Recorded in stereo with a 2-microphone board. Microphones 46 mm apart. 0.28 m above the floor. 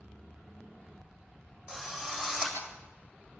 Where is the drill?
20° right (ahead or behind), 8 m.